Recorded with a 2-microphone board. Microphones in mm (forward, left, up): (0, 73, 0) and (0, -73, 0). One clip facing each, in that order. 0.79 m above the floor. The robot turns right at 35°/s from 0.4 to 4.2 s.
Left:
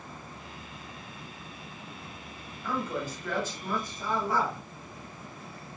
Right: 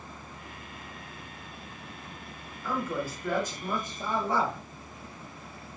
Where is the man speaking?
175° right, 1.0 m; by 4.6 s 125° right, 1.0 m.